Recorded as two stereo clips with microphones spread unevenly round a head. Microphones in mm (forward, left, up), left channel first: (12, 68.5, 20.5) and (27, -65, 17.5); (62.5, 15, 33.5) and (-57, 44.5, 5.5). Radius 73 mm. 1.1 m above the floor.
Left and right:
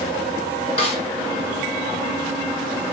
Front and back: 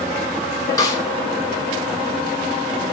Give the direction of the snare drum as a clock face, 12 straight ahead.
10 o'clock.